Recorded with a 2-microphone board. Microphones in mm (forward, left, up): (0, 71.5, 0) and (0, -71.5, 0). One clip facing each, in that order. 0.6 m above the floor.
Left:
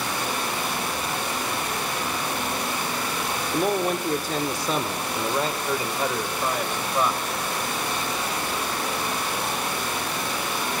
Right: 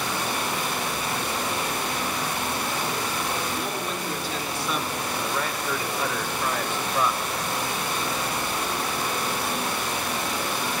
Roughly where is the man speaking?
Left.